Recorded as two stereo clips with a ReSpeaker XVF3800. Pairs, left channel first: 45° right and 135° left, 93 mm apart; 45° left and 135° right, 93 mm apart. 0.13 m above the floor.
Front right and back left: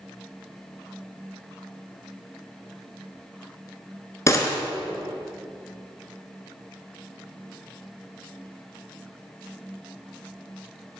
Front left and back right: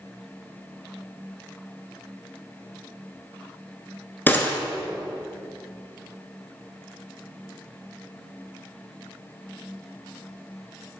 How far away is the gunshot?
About 1.1 m.